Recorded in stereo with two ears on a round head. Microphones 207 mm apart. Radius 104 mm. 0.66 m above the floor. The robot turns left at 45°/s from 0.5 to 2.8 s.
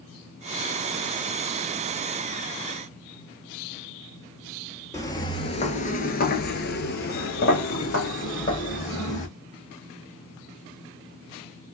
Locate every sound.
4.9 s footsteps: 15° left (ahead or behind), 0.9 m; by 9.3 s 35° left (ahead or behind), 2.0 m